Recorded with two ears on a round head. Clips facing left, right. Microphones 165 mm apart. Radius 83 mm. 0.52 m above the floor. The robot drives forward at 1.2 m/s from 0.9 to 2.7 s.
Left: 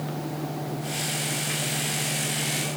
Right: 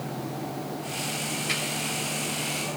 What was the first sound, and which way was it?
Only background noise.